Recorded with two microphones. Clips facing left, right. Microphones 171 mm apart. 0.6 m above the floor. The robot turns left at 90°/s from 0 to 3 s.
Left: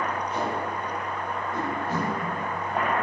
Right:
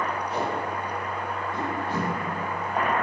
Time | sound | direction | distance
0.3 | tape being pulled | 75° right (ahead or behind) | 1.1 m